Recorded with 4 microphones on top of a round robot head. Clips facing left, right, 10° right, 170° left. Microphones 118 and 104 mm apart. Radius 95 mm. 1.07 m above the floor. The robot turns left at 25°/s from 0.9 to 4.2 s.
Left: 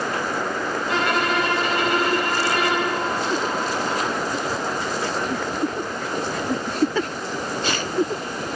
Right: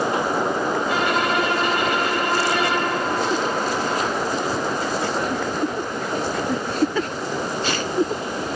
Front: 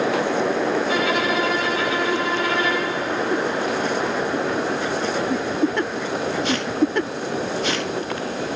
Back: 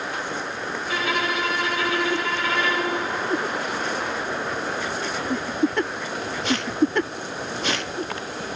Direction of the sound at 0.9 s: 10° right.